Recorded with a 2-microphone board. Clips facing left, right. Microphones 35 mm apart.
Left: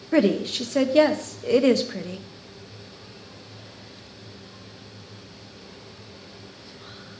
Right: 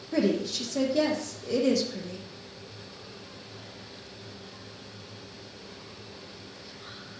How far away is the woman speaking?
About 0.7 m.